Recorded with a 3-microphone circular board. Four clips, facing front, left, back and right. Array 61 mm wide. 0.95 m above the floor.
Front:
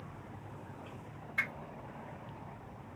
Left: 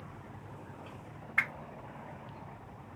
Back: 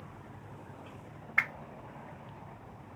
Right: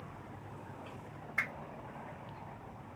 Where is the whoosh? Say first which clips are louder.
Left 5 dB, back 5 dB; 145° left, 0.8 m.